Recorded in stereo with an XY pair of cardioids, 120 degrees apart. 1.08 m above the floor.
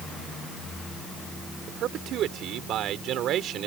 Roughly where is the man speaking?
Ahead right.